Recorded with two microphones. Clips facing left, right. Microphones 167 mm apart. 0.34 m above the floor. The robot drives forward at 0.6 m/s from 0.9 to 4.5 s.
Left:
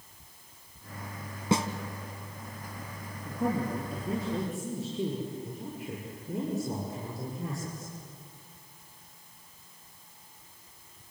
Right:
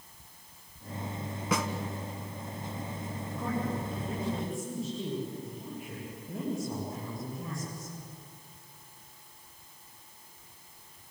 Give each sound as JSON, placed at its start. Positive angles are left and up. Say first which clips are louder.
{"t": 1.5, "sound": "a snare drum", "louder": "left 4 dB", "side_deg": 30, "distance_m": 1.4}
{"t": 3.2, "sound": "a man speaking", "louder": "left 4 dB", "side_deg": 75, "distance_m": 8.0}